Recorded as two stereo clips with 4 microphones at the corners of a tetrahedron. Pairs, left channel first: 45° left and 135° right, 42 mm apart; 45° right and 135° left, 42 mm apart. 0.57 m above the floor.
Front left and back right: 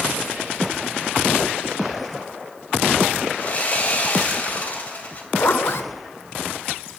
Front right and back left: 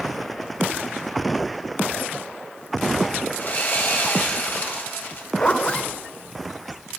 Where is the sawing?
5° right, 2.5 m.